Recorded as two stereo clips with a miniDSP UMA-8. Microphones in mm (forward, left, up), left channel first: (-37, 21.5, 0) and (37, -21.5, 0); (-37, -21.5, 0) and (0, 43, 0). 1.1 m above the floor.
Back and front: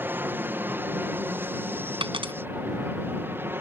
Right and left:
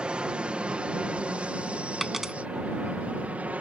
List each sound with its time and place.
0.0 s an aircraft: straight ahead; by 3.6 s 5° left
2.0 s a dropped coin: 25° right